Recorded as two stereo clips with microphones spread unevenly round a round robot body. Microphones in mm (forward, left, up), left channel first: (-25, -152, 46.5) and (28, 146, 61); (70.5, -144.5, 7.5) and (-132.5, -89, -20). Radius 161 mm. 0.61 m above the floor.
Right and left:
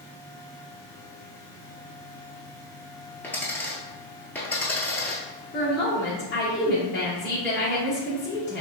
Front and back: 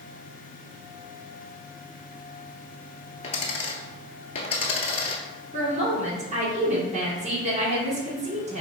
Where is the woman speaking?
150° right, 1.7 m.